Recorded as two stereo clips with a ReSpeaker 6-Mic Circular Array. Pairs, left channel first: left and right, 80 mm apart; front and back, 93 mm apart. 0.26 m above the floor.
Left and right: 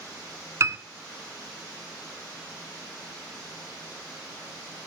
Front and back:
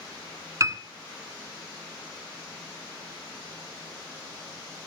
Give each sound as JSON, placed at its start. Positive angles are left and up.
{"t": 0.6, "sound": "a piano", "azimuth_deg": -130, "distance_m": 1.0}